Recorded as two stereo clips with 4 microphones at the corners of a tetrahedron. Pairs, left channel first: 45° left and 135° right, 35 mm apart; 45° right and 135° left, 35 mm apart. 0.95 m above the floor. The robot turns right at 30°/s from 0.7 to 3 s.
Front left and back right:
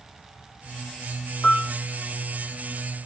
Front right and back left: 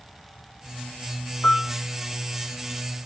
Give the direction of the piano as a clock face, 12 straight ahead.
1 o'clock.